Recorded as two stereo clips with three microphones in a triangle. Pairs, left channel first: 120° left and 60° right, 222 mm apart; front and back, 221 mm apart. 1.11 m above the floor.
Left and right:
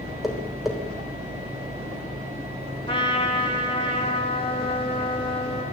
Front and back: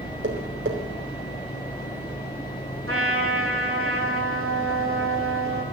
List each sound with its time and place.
0.2 s tapping: 150° right, 3.5 m
2.9 s a trumpet: 175° right, 2.5 m